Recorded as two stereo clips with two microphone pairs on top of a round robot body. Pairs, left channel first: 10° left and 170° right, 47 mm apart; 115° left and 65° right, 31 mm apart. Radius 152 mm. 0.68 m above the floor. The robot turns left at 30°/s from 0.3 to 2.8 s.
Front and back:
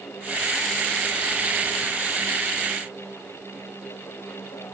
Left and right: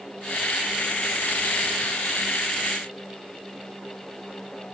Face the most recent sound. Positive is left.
No sound to turn to.